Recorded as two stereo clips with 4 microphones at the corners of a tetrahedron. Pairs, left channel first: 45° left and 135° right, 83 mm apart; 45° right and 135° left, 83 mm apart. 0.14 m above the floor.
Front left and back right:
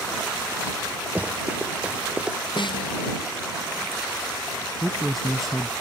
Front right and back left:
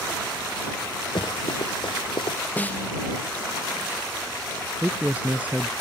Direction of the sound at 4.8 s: 130° left.